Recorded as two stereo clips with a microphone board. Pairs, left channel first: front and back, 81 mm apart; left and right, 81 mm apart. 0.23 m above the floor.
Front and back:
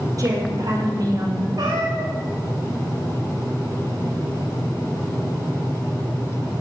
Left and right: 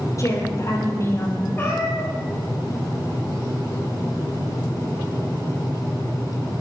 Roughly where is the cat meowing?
Behind left.